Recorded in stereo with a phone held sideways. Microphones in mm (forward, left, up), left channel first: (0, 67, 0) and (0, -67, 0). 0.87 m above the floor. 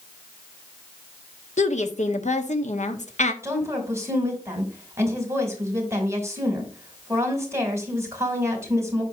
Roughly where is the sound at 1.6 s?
Left.